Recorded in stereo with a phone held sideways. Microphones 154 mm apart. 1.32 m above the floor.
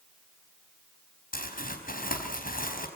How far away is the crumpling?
About 5 m.